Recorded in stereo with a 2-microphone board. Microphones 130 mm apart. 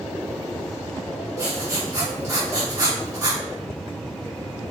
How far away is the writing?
About 1.1 m.